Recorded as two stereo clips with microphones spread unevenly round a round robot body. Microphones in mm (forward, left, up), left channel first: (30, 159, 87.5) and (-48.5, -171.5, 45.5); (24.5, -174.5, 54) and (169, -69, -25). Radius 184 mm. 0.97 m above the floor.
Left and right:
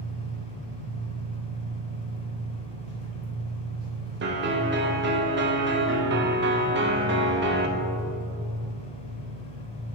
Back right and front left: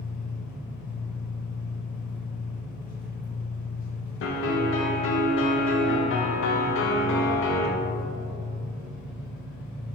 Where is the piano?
150° right, 0.8 m.